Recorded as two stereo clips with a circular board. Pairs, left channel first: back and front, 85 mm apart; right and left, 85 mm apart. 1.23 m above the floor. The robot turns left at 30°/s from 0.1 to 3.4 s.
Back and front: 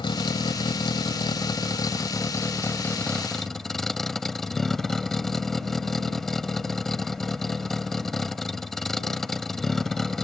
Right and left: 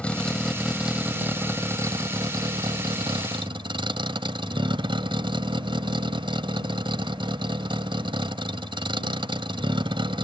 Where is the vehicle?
170° right; by 10.2 s 95° left.